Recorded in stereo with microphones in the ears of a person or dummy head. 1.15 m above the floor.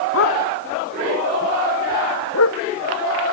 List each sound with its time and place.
0.1 s a dog barking: 65° left (ahead or behind); by 2.6 s 70° left (ahead or behind)